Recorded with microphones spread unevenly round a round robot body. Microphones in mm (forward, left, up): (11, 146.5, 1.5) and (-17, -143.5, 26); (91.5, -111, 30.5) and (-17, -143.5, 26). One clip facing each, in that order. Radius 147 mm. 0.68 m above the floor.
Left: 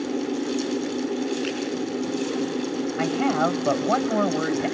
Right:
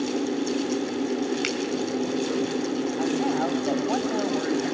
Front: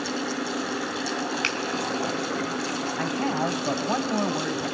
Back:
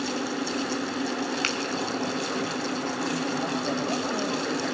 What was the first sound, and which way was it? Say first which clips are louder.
A finger snap: left 1 dB, even; 110° right.